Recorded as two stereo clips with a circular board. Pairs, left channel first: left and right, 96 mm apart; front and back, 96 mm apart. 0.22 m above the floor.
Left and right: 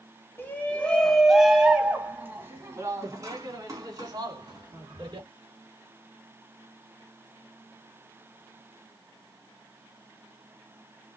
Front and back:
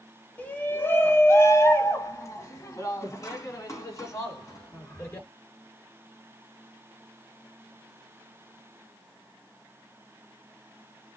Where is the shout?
55° left, 1.5 m; by 5.3 s 55° right, 3.5 m.